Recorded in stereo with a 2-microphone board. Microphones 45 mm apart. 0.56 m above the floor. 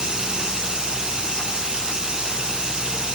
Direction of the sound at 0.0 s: 15° right (ahead or behind).